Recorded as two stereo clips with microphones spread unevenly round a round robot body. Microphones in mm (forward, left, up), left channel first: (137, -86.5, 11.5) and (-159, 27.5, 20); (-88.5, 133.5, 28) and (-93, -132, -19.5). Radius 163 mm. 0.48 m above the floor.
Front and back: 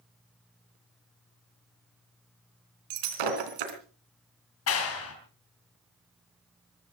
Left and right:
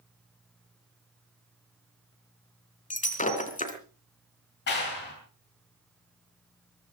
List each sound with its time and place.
2.9 s breaking glass: 155° left, 3 m
4.7 s a clap: 25° left, 4 m